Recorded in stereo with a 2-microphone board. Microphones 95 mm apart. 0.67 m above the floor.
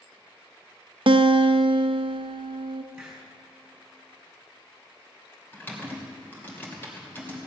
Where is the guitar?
65° right (ahead or behind), 0.6 m.